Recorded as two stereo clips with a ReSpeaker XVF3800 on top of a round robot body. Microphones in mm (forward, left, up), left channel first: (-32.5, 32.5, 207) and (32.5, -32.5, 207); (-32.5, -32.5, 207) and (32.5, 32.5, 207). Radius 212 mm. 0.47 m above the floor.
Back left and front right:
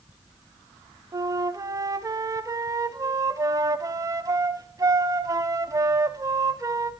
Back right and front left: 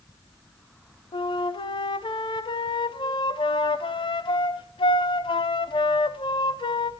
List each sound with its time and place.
1.1 s a flute: 100° right, 0.8 m